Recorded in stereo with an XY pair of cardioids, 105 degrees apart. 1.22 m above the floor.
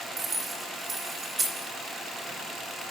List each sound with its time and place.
0.2 s keys jangling: 30° right, 2.5 m